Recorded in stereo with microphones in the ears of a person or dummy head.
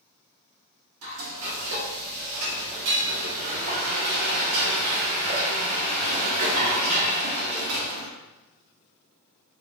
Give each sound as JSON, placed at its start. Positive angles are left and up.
{"t": 1.0, "sound": "frying", "side_deg": -90, "distance_m": 1.9}